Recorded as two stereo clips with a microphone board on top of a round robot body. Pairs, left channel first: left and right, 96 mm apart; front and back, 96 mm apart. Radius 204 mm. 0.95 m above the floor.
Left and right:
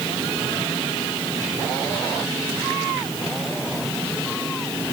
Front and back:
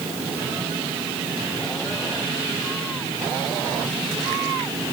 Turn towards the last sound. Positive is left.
No sound to turn to.